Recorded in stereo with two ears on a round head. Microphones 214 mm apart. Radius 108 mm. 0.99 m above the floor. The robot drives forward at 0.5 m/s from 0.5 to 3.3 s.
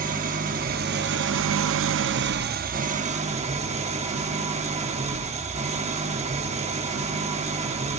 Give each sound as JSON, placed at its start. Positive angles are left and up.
{"t": 0.0, "sound": "an engine running", "side_deg": -35, "distance_m": 0.8}